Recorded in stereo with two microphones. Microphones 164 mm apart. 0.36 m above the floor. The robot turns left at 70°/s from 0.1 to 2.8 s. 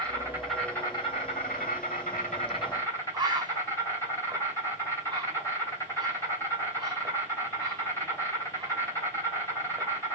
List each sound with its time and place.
0.0 s an insect: 150° right, 3 m; by 10.2 s 20° left, 3 m
3.1 s a bird: 25° right (ahead or behind), 0.8 m